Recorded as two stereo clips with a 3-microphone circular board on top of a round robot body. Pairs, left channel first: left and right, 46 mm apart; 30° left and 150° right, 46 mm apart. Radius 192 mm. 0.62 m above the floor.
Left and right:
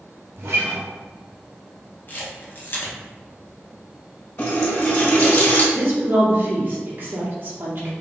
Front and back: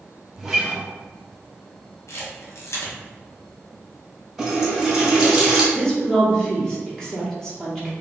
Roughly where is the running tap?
Behind left.